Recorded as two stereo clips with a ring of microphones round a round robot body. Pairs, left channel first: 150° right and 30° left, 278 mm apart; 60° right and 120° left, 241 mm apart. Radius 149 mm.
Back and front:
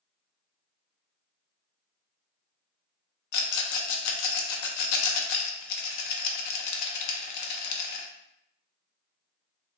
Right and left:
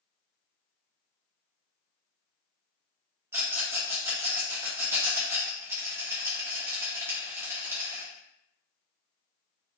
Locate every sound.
3.3 s a rattle: 160° right, 0.6 m